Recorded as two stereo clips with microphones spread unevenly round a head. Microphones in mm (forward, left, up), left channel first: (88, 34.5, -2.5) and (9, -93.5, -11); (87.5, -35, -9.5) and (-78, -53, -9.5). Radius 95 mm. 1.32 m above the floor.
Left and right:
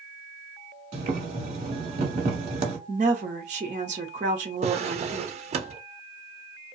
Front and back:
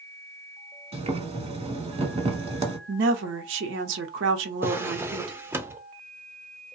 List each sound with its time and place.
0.9 s boiling: 145° right, 1.2 m
2.9 s a woman speaking: 175° right, 0.7 m
4.6 s a drawer: 105° right, 0.6 m